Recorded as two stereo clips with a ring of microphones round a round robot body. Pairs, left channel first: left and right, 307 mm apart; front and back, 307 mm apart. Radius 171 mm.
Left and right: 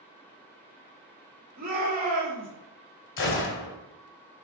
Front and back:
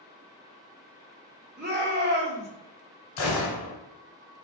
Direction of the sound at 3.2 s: 45° left.